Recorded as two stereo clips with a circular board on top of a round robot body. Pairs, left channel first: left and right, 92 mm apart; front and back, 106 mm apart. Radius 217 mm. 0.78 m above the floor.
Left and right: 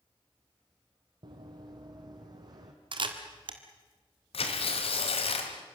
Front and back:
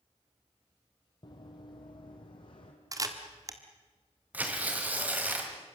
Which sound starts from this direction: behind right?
A camera shutter, at 2.9 s.